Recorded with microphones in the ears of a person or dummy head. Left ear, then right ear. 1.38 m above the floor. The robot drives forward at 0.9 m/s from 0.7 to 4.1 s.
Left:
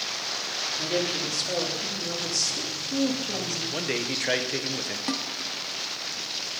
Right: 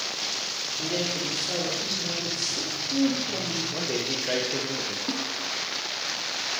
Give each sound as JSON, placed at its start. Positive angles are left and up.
{"t": 0.8, "sound": "a woman speaking", "side_deg": 40, "distance_m": 3.0}
{"t": 3.7, "sound": "a man speaking", "side_deg": 65, "distance_m": 1.2}
{"t": 5.1, "sound": "a snare drum", "side_deg": 55, "distance_m": 1.2}